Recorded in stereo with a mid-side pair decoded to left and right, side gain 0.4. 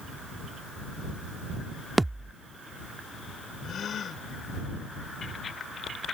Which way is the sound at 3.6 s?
60° left.